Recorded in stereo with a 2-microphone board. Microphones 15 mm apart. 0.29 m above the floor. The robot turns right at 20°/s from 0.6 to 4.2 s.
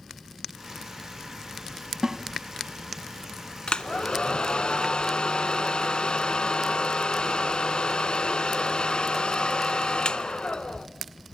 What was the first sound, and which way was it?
A snare drum, 35° right (ahead or behind).